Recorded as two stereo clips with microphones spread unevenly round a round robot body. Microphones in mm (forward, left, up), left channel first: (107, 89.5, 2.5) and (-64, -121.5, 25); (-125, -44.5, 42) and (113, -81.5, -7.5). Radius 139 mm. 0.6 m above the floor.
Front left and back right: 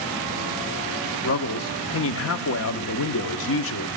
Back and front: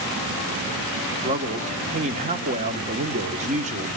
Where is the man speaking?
35° left, 1.0 m.